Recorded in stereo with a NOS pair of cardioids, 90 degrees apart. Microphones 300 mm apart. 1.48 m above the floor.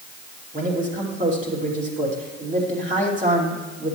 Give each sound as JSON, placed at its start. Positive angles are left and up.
{"t": 0.5, "sound": "a man speaking", "azimuth_deg": -25, "distance_m": 3.0}